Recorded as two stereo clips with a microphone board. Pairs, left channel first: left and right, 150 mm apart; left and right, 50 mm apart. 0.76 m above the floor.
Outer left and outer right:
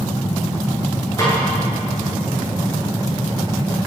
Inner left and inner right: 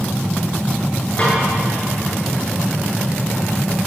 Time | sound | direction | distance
1.2 | a snare drum | 25° left (ahead or behind) | 10 m